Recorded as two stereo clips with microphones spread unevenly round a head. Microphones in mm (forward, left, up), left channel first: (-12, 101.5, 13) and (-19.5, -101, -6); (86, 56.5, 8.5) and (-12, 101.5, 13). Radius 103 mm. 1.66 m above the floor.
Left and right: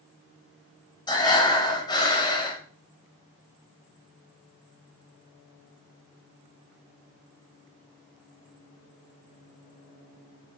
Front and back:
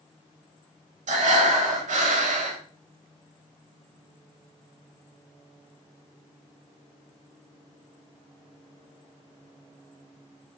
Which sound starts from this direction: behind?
Breathing, at 1.1 s.